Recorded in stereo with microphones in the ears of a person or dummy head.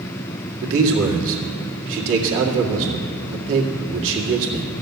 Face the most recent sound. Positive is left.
turn(degrees=-75)  # may be behind; listen again after turning